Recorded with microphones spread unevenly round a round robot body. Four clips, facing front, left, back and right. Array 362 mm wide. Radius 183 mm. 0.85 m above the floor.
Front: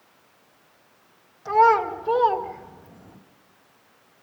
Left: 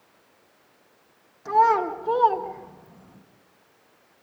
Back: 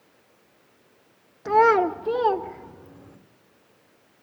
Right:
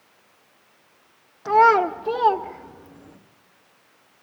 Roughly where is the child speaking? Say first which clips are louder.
Right 3 dB, even; behind.